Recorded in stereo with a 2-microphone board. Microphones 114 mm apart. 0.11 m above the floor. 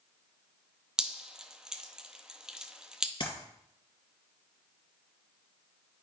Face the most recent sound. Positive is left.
turn(degrees=50)  # may be behind; listen again after turning